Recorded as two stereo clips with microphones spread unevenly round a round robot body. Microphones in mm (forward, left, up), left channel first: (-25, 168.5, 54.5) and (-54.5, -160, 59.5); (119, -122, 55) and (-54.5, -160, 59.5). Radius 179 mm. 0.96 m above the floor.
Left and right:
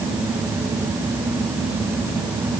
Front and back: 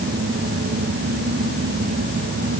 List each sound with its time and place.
Only background noise.